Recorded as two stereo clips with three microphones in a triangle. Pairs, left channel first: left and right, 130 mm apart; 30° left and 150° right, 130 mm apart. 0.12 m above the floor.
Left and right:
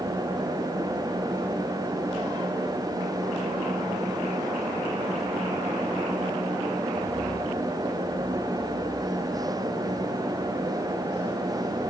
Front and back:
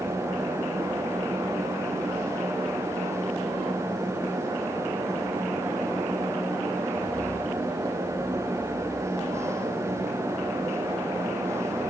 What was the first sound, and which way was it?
Only background noise.